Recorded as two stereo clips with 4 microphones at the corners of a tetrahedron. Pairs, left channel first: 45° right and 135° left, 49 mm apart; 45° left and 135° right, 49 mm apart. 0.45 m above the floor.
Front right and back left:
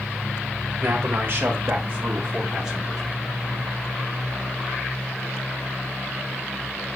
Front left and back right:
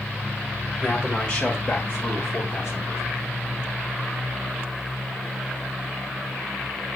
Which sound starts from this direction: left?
A man speaking, at 0.8 s.